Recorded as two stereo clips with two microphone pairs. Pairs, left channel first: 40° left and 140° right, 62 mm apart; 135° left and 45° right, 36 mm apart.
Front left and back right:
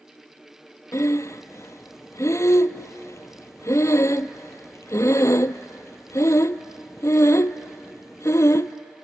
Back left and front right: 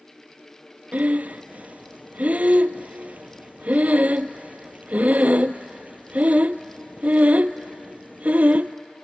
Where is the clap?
No clap in this recording.